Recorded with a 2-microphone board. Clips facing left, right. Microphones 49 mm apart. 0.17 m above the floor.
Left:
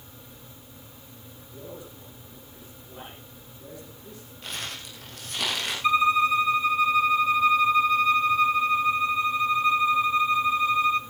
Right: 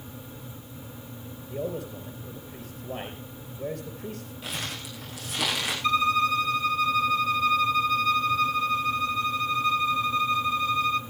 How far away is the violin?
About 0.9 m.